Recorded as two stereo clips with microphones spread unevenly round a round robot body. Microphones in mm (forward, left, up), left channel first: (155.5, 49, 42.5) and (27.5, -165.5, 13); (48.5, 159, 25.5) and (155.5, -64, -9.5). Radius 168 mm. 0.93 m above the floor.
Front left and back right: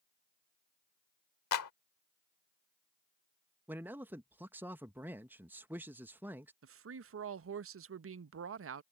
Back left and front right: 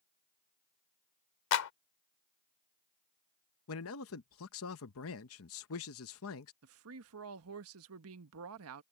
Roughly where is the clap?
Left.